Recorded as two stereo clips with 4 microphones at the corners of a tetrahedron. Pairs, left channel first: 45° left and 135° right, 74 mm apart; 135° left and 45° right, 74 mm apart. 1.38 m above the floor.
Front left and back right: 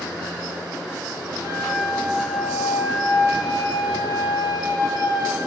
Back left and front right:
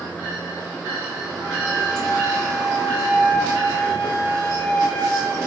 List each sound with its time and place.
1.4 s a flute: 65° left, 4 m